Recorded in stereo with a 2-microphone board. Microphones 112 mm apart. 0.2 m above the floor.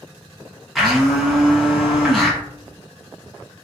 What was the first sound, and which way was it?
A blender, centre (ahead or behind).